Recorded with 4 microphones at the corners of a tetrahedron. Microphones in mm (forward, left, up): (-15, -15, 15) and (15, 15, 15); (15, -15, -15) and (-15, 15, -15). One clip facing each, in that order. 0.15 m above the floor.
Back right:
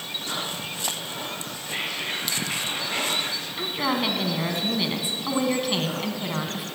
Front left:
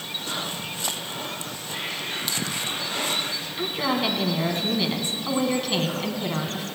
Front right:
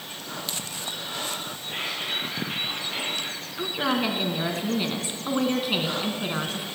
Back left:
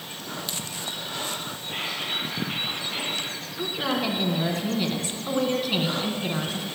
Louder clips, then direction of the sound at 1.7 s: Back right 2 dB, even; 135° right.